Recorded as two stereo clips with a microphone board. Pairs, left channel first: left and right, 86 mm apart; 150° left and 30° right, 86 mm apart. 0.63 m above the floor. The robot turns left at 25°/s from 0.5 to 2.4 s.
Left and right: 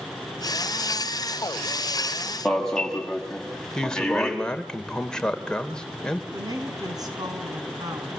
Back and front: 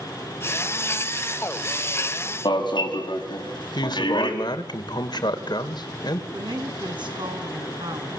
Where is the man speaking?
170° left, 3 m.